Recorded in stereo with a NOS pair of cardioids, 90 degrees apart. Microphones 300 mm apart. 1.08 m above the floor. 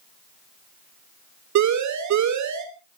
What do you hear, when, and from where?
1.6 s a siren: 65° right, 3 m